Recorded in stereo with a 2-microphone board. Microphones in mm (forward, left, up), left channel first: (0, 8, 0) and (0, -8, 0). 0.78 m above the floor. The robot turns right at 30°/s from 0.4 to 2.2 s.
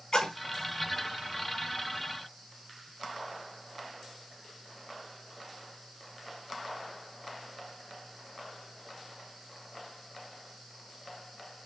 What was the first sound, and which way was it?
A splash, 45° left (ahead or behind).